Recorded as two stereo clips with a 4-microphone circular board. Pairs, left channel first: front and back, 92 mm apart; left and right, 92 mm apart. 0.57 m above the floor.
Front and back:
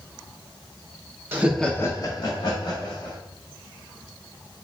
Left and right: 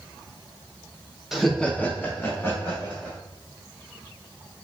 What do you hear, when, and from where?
1.3 s laughter: 175° right, 0.7 m; by 3.2 s 25° left, 2 m